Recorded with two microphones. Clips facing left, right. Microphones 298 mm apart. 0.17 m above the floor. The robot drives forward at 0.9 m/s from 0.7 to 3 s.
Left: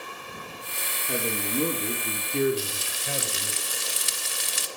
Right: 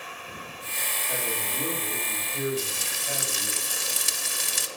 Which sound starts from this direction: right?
Frying, at 2.6 s.